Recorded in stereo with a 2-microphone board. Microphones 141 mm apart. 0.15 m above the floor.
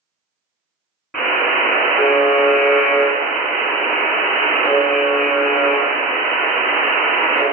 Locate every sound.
1.1 s a buzzer: centre (ahead or behind), 1.1 m